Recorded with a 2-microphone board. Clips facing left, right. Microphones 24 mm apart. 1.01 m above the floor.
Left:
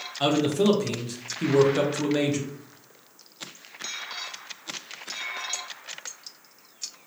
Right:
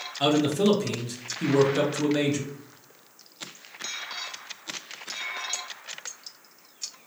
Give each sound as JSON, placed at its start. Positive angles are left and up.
{"t": 0.2, "sound": "a man speaking", "side_deg": 10, "distance_m": 0.5}